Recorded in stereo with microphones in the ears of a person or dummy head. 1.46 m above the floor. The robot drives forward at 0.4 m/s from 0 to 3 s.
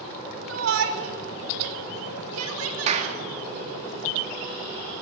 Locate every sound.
0.5 s a shout: 75° right (ahead or behind), 5 m; by 3.2 s 90° right, 4.5 m
2.9 s a clap: 40° right (ahead or behind), 2.5 m